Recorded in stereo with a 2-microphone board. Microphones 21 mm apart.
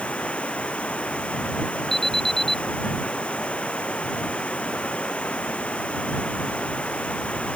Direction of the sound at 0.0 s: 80° left.